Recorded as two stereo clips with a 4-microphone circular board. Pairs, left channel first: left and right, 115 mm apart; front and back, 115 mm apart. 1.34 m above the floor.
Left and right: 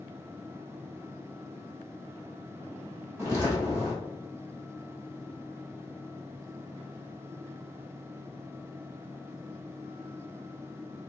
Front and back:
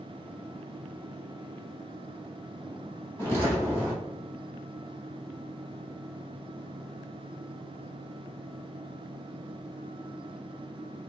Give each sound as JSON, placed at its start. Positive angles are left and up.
{"t": 3.2, "sound": "footsteps", "azimuth_deg": -45, "distance_m": 1.6}